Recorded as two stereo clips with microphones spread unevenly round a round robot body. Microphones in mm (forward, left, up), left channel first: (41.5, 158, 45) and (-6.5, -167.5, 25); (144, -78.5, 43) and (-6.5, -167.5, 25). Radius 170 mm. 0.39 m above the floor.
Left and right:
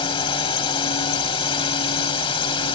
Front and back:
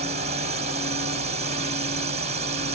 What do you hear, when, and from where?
0.0 s a drone: 155° left